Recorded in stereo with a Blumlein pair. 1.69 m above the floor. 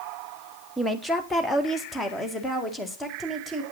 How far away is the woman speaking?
About 1.0 m.